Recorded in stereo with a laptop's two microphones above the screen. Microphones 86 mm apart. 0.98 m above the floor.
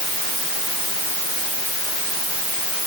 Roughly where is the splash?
I don't hear a splash.